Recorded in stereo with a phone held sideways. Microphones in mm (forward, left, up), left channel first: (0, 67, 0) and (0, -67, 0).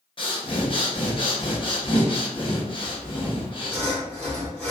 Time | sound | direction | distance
0.2 | breathing | 40° left (ahead or behind) | 0.8 m
2.8 | sawing | 10° left (ahead or behind) | 1.6 m